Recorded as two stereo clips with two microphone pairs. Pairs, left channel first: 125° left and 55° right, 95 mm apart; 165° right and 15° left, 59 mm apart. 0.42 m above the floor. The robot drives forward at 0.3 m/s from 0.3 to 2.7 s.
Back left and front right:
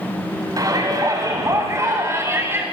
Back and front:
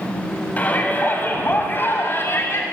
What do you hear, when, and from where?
0.6 s a shout: 100° right, 2 m; by 2.6 s 115° right, 2 m